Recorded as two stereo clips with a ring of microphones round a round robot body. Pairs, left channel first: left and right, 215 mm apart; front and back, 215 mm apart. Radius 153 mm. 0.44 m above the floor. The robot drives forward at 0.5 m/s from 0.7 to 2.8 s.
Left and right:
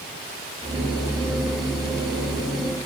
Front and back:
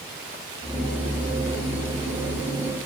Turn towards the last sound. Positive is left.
No sound to turn to.